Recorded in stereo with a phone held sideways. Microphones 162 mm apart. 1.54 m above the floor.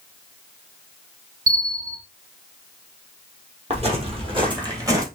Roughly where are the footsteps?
Right.